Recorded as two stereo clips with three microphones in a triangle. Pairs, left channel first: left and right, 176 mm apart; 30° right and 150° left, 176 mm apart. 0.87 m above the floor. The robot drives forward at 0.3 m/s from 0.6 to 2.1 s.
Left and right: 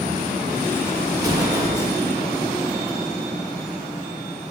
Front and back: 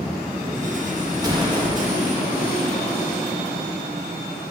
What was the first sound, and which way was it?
An explosion, 145° right.